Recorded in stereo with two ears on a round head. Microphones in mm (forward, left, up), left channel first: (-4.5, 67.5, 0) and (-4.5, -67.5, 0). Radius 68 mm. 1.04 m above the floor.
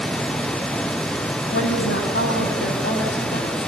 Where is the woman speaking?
85° left, 9 m; by 3.7 s 75° left (ahead or behind), 8 m.